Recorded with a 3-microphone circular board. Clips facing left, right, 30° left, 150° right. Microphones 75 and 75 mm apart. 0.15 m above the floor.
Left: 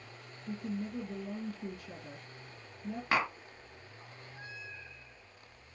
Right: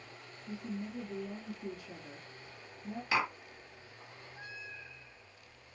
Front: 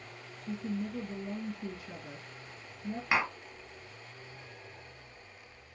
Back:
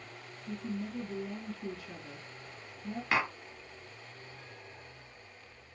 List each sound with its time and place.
0.5 s a woman speaking: 65° left, 2 m
3.1 s tapping: 105° left, 2.5 m